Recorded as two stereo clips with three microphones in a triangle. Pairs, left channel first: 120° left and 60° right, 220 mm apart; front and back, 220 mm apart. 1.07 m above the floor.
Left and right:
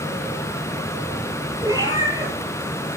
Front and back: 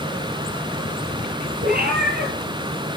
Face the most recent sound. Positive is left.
turn(degrees=-135)